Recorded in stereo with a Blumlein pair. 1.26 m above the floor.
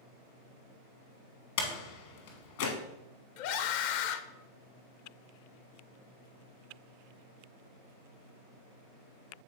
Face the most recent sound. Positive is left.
turn(degrees=45)